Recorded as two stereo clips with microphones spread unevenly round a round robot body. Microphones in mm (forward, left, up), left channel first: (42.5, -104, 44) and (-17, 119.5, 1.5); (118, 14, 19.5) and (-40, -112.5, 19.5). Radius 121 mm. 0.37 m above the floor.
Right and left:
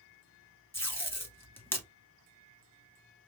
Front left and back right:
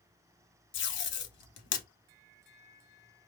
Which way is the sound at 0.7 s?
5° left.